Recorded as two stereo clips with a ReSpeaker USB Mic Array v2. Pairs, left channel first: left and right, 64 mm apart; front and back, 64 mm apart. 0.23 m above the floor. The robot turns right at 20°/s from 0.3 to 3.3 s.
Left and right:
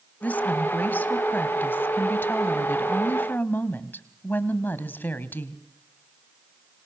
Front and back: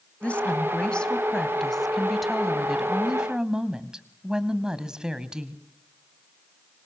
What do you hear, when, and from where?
0.2 s a woman speaking: 50° left, 1.3 m; by 5.6 s 110° left, 1.3 m